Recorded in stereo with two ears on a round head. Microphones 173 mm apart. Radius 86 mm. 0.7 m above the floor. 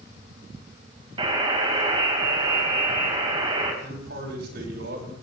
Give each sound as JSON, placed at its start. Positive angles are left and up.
{"t": 1.2, "sound": "a buzzer", "side_deg": -25, "distance_m": 4.0}
{"t": 3.8, "sound": "a man speaking", "side_deg": -55, "distance_m": 5.5}